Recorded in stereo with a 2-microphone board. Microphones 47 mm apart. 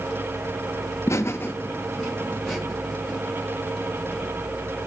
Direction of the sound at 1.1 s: 80° left.